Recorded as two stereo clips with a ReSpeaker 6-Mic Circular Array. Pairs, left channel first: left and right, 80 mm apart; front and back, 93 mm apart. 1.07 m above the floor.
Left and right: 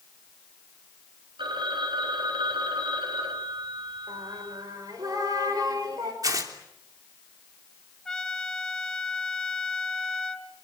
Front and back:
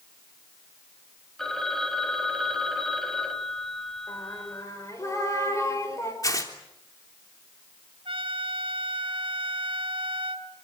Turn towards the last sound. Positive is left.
turn(degrees=170)